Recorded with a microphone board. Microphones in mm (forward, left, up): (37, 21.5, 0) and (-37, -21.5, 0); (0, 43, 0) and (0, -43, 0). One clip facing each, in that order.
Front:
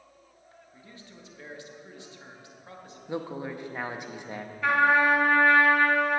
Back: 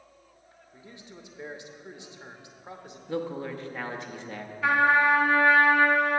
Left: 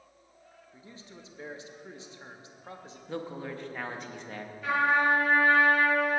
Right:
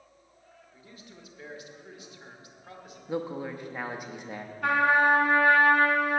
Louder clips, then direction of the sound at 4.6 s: Even, right 3 dB; 65° right.